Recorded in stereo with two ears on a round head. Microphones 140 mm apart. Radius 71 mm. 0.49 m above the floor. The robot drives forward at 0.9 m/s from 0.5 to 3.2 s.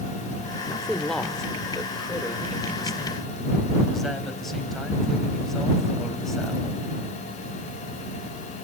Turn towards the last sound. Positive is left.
turn(degrees=0)  # may be behind; listen again after turning